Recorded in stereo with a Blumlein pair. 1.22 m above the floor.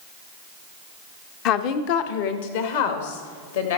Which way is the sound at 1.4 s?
40° left.